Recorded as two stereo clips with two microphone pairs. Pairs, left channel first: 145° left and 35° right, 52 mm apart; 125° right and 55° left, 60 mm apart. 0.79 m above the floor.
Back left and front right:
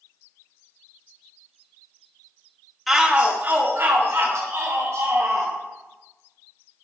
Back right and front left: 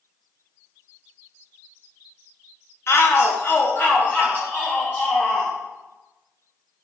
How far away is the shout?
About 1.2 m.